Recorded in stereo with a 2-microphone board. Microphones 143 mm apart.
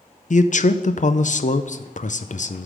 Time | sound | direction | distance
0.3 | a man speaking | 60° left (ahead or behind) | 0.5 m